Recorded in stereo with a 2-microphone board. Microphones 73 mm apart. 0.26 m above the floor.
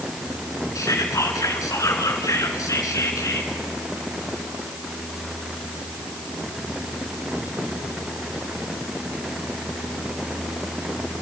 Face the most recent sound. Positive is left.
turn(degrees=50)  # may be behind; listen again after turning